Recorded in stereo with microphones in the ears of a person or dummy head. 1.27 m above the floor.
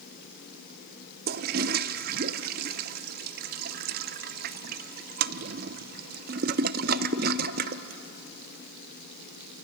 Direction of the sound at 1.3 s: 55° right (ahead or behind).